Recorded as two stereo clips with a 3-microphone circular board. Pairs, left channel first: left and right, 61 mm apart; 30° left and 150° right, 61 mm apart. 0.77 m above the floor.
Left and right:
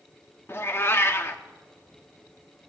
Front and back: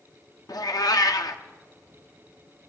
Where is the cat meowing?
40° left, 0.6 m.